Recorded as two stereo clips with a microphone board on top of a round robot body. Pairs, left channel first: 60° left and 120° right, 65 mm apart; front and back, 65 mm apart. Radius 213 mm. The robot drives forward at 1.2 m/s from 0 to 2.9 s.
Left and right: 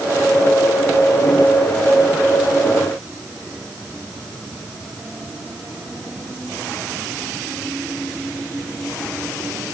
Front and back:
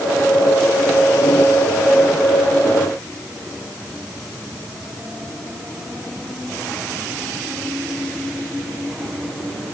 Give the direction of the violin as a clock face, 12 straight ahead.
I don't hear a violin.